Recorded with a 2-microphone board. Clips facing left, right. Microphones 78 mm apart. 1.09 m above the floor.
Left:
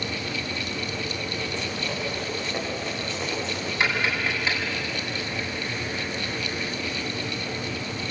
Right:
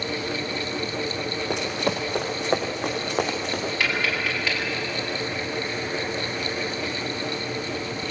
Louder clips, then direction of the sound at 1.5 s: Right 5 dB; 70° right (ahead or behind).